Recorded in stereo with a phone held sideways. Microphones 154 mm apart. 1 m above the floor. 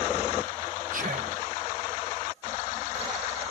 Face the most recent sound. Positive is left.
turn(degrees=-60)  # may be behind; listen again after turning